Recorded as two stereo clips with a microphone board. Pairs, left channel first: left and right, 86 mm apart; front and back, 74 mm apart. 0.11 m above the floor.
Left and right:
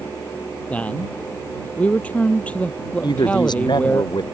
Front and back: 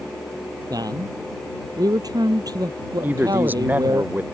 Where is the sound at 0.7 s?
160° left.